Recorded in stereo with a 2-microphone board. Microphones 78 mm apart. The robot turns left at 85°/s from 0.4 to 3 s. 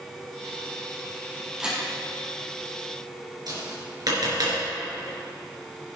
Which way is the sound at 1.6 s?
10° right (ahead or behind).